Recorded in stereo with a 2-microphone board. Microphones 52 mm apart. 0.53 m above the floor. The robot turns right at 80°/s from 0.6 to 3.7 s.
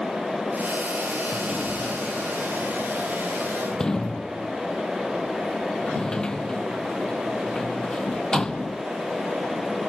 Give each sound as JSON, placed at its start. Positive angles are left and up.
{"t": 1.3, "sound": "a sliding door", "side_deg": -25}